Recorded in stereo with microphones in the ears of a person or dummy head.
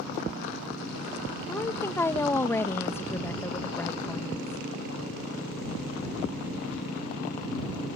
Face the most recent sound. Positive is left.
turn(degrees=15)  # may be behind; listen again after turning